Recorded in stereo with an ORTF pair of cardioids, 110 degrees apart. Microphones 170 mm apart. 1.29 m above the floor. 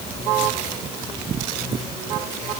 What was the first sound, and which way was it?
Only background noise.